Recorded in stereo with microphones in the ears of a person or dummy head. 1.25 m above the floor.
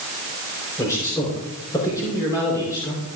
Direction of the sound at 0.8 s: 20° left (ahead or behind).